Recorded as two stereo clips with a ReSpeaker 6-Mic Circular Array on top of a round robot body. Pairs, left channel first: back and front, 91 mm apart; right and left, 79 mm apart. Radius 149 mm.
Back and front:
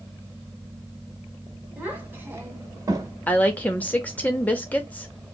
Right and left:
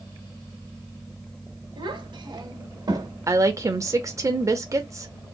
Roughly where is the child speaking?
Left.